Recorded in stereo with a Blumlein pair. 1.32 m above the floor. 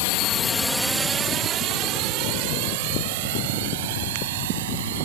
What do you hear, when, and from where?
0.0 s a drone: 50° left; by 5.1 s 55° right